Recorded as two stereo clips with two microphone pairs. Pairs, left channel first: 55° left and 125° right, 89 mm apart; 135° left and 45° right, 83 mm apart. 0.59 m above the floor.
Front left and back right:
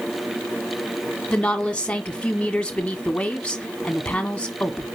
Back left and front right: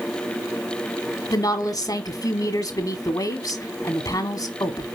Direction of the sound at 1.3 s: 125° left.